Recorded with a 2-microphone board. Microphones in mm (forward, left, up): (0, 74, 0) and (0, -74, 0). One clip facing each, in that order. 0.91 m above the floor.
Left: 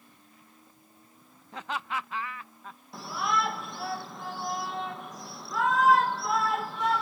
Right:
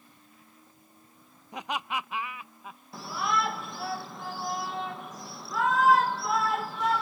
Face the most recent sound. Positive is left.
turn(degrees=0)  # may be behind; listen again after turning